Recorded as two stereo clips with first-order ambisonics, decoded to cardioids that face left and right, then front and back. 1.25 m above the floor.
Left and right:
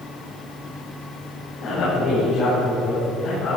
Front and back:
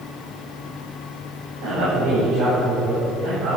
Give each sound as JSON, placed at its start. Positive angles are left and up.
{"t": 1.6, "sound": "a man speaking", "azimuth_deg": 145, "distance_m": 5.5}